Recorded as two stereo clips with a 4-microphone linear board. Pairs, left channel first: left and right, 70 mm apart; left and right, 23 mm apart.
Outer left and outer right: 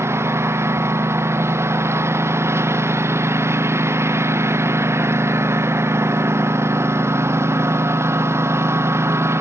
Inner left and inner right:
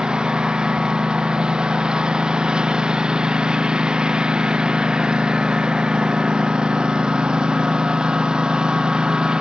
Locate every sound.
0.0 s a lawn mower: 40° right (ahead or behind)